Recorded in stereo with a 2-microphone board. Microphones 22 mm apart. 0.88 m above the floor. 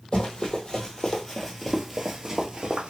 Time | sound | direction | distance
0.1 | running footsteps | 30° left (ahead or behind) | 1.5 m